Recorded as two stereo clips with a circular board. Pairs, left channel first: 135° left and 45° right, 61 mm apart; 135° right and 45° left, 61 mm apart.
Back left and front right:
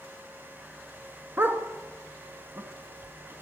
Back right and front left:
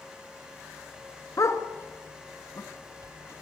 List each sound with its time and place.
1.4 s a dog barking: 100° right, 1.8 m